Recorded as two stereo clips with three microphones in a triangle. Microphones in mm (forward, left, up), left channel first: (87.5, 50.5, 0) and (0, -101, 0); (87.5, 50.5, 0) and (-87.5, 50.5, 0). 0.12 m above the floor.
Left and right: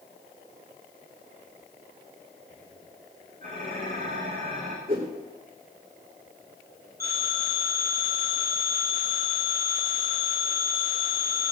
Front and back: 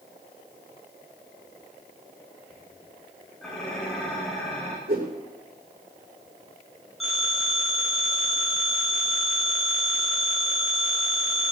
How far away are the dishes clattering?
About 5 m.